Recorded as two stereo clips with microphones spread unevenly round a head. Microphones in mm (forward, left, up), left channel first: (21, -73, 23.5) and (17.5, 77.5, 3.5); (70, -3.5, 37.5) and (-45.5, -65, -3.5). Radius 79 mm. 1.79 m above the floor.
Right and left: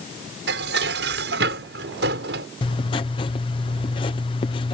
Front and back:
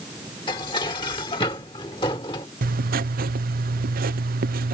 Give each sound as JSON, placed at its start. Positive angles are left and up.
{"t": 0.5, "sound": "dishes clattering", "azimuth_deg": 85}
{"t": 2.6, "sound": "writing", "azimuth_deg": -150}